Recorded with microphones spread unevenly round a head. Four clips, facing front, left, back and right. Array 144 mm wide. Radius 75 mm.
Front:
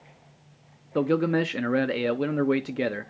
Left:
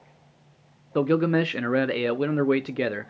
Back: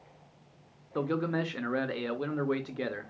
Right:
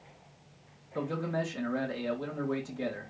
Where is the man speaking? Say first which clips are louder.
Left 11 dB, front 7 dB; 50° left, 0.8 m.